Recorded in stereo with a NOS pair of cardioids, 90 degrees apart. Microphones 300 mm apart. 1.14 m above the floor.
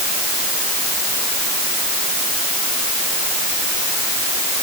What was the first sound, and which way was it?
Only background noise.